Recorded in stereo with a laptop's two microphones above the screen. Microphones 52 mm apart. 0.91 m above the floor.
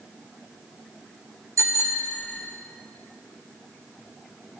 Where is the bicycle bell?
85° right, 2 m.